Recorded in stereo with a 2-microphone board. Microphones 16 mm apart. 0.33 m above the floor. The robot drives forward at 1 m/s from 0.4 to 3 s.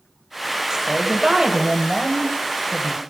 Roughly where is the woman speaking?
Right.